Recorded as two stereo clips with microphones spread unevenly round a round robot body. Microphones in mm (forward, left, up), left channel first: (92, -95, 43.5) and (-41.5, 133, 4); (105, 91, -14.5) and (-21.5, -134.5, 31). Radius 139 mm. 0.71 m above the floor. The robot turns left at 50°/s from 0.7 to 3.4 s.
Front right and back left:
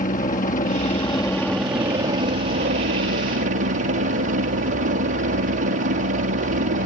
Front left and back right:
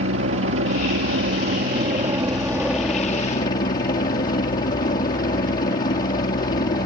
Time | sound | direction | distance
0.0 | a helicopter | 115° right | ?